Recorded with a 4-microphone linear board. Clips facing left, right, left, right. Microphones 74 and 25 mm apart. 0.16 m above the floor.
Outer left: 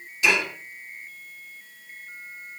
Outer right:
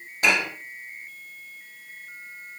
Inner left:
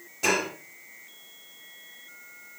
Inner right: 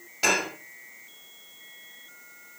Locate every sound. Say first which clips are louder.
0.2 s dishes clattering: even, inner right 1 dB; 45° right (ahead or behind), 4.5 m